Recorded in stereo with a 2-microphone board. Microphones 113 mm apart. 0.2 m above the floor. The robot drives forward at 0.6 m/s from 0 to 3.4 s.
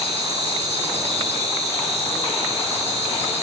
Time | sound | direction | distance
0.0 | an insect | 75° right (ahead or behind) | 8 m